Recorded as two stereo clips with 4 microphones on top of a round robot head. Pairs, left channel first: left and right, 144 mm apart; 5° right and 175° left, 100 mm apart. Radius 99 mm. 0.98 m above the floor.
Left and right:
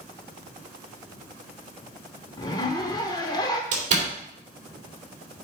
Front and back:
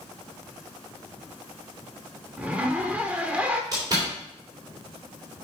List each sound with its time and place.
2.4 s a zipper: 115° left, 0.6 m
3.7 s a door slam: 125° right, 3 m